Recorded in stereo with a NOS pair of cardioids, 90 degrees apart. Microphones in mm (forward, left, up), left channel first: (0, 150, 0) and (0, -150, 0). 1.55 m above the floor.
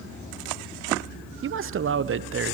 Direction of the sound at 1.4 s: 45° right.